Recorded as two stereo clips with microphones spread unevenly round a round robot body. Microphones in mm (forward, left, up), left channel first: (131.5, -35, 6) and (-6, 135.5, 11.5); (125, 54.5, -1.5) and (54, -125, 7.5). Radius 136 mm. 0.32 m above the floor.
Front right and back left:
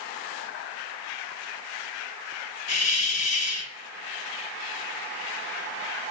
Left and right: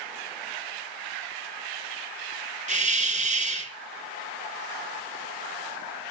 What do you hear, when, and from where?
2.7 s a hiss: 60° right, 2.5 m